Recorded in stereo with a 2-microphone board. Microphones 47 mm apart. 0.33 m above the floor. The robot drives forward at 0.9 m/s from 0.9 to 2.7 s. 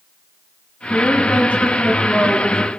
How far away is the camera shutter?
I don't hear a camera shutter.